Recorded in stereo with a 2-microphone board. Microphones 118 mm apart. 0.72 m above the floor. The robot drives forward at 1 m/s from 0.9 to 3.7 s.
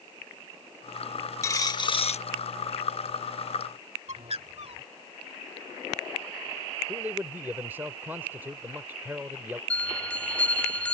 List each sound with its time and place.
1.4 s a dropped coin: 25° left (ahead or behind); by 2.2 s 75° left (ahead or behind)
4.1 s a bird: 60° right (ahead or behind)
6.9 s a man speaking: 15° right (ahead or behind)
9.7 s a bell: 10° left (ahead or behind)